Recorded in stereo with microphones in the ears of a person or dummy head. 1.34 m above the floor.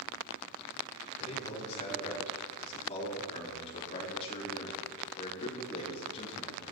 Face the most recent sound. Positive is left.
turn(degrees=30)  # may be behind; listen again after turning